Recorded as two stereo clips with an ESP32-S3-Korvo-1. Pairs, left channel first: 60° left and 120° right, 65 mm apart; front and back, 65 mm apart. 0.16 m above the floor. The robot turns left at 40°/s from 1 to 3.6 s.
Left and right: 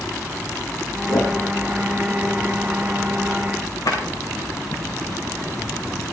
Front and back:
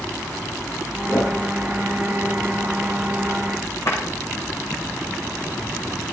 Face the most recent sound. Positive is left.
turn(degrees=40)